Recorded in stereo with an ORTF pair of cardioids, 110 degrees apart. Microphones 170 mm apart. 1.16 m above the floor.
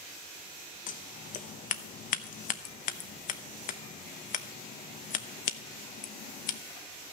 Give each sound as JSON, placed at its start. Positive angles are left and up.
{"t": 0.9, "sound": "scissors", "azimuth_deg": 50, "distance_m": 0.9}